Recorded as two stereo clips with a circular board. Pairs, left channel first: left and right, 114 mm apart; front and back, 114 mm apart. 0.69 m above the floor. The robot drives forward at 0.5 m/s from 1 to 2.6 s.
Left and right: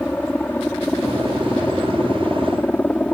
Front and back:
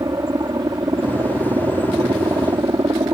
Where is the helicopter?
155° left; by 3.1 s 160° left.